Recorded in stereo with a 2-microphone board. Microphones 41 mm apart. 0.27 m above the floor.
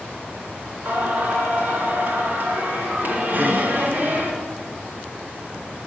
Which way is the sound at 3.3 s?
45° right (ahead or behind).